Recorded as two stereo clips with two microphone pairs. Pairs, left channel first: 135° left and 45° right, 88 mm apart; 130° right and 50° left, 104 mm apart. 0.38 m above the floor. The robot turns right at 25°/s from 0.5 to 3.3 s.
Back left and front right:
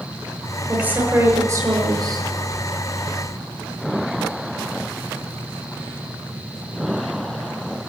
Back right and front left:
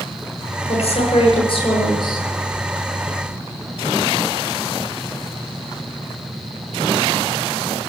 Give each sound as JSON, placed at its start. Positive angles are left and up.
{"t": 0.7, "sound": "a woman speaking", "azimuth_deg": -125, "distance_m": 7.0}